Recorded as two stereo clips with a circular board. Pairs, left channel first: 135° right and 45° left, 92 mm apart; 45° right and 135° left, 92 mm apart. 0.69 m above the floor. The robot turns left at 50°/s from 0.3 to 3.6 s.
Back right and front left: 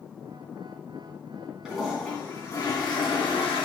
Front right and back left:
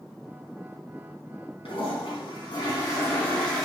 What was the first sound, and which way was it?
A toilet flushing, 40° right.